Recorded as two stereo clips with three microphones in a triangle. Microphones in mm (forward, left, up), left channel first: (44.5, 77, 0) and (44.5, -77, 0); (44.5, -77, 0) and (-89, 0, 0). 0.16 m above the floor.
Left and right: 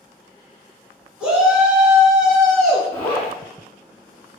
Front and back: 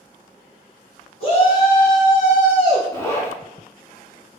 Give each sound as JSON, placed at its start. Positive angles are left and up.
{"t": 1.2, "sound": "a shout", "azimuth_deg": -10, "distance_m": 1.6}
{"t": 2.9, "sound": "a zipper", "azimuth_deg": 30, "distance_m": 1.3}